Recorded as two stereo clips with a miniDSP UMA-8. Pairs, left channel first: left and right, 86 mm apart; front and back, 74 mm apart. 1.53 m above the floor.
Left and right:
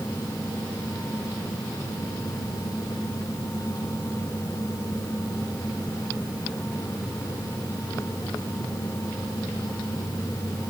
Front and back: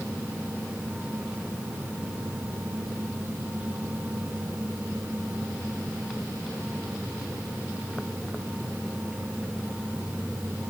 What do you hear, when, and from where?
Only background noise.